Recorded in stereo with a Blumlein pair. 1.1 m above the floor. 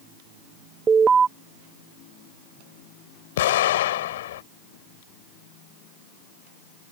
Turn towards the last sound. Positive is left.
turn(degrees=55)